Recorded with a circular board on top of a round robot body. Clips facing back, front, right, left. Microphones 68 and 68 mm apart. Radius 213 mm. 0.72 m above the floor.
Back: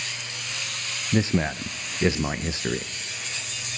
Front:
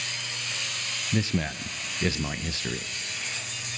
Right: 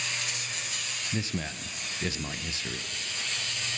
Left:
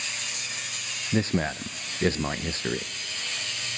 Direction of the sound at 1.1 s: 125° left.